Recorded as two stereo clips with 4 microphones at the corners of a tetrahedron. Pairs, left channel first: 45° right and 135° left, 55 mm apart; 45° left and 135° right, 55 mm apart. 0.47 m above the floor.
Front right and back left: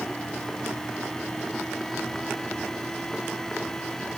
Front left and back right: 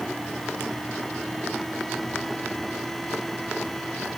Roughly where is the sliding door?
No sliding door in this recording.